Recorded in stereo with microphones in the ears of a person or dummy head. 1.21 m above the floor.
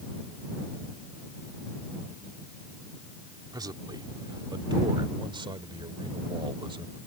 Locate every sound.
3.5 s a man speaking: 25° right (ahead or behind); by 7.0 s 30° right (ahead or behind)